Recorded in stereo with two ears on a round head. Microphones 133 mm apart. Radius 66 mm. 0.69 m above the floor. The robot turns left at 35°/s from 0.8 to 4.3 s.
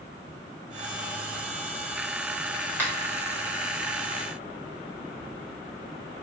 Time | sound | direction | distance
2.8 | a finger snap | 15° left (ahead or behind) | 1.2 m